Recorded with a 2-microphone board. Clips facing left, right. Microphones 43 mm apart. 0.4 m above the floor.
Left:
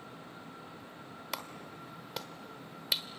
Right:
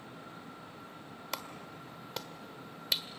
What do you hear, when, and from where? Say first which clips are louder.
1.3 s a clap: even; 5° left (ahead or behind), 1.2 m